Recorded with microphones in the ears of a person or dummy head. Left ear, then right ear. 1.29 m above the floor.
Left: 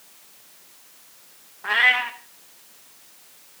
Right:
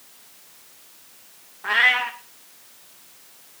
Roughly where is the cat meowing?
Centre.